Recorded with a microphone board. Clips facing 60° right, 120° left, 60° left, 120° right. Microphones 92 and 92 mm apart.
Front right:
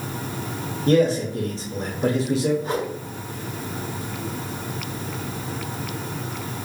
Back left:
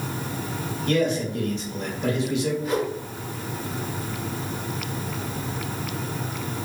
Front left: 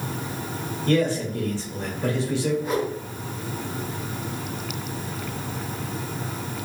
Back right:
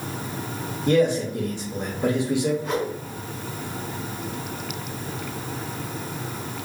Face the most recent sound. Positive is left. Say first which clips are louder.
# back left 1 dB, front left 1 dB
turn(degrees=-25)